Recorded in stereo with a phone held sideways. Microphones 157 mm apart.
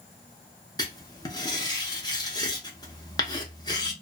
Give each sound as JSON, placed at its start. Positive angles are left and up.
{"t": 0.8, "sound": "writing", "side_deg": 25, "distance_m": 0.8}